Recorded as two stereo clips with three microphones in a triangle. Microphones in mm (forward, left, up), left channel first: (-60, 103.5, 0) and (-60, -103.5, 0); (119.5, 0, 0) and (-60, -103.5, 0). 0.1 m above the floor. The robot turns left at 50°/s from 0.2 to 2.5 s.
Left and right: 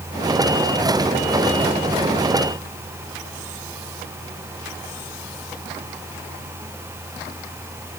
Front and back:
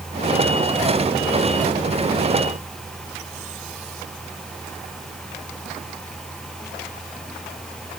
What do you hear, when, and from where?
Only background noise.